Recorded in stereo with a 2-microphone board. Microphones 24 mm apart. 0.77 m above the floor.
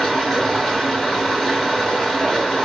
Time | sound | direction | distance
0.0 | running water | 5° right (ahead or behind) | 1.7 m